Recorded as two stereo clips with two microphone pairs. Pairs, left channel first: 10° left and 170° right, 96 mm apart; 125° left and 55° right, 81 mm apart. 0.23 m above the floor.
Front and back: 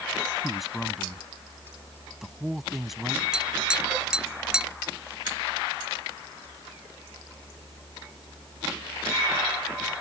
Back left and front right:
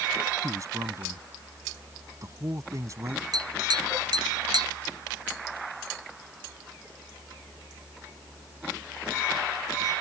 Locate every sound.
0.4 s a man speaking: 80° right
3.3 s tapping: 85° right